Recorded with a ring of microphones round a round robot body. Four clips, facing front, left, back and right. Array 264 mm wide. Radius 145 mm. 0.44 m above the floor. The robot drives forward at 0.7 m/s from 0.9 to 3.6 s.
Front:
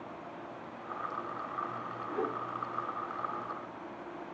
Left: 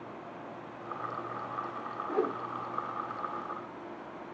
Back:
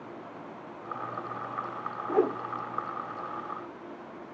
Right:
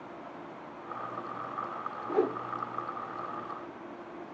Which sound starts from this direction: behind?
A whoosh, at 2.1 s.